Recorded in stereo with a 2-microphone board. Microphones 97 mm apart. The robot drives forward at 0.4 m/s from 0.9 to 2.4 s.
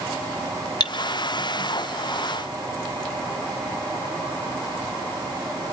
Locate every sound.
0.8 s cutlery clinking: 45° left (ahead or behind), 1.0 m